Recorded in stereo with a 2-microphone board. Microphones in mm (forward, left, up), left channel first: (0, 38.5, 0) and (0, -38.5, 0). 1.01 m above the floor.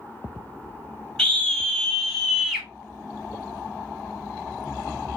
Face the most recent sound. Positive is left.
turn(degrees=-15)  # may be behind; listen again after turning